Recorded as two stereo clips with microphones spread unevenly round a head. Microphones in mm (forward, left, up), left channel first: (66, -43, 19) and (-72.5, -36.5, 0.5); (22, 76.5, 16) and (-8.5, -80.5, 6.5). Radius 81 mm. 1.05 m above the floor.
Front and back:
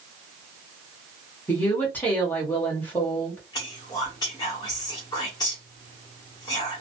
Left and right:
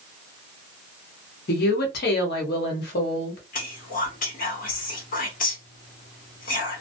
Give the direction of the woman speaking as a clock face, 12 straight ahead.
9 o'clock.